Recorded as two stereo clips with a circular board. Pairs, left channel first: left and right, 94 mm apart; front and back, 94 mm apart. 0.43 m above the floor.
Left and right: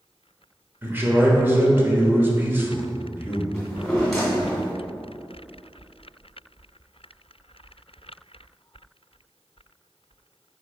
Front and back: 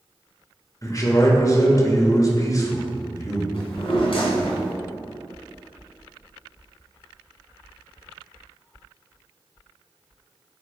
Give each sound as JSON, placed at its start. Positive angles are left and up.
{"t": 0.8, "sound": "a man speaking", "azimuth_deg": -30, "distance_m": 1.2}
{"t": 3.5, "sound": "a drawer", "azimuth_deg": 5, "distance_m": 2.0}